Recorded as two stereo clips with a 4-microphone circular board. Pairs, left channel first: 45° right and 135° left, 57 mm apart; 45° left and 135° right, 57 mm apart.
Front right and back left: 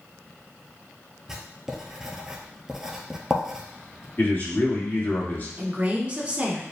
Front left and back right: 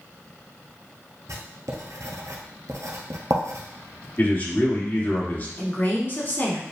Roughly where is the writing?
Behind right.